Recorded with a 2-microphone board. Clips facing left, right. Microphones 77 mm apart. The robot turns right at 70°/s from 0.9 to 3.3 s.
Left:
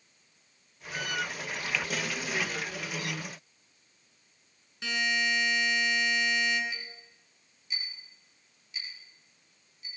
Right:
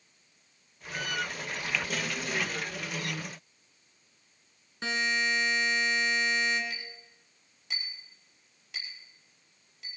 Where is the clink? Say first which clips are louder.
Even; 60° right (ahead or behind), 5 m.